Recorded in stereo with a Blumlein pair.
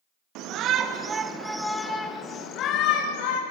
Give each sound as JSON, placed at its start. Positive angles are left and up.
{"t": 0.3, "sound": "a shout", "azimuth_deg": -40, "distance_m": 2.5}